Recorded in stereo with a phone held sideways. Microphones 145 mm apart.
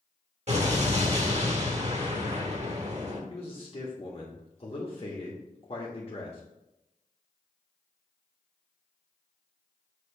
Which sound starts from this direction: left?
A man speaking, at 3.3 s.